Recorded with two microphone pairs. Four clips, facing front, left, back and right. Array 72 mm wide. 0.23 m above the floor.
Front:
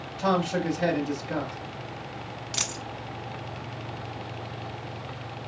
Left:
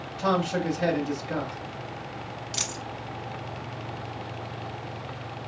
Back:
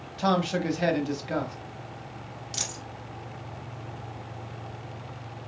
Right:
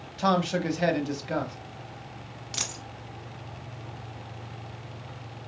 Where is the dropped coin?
15° right, 0.6 m.